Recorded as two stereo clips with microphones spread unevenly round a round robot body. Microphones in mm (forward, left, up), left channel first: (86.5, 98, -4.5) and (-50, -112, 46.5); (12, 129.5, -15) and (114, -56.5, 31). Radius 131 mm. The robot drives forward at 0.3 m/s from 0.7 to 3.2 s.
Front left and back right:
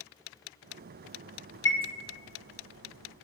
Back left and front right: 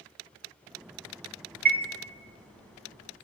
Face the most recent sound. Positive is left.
turn(degrees=-40)